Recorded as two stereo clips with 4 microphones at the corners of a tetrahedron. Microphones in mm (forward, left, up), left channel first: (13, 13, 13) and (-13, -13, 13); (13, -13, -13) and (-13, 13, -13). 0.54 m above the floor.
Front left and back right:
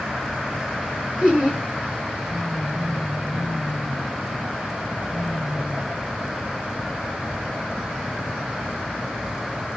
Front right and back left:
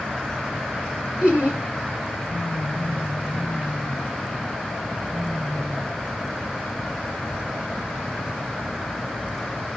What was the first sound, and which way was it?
Laughter, straight behind.